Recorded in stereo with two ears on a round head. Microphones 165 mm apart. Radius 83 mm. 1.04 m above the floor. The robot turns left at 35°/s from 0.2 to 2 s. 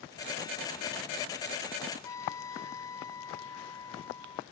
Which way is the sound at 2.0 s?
15° left (ahead or behind).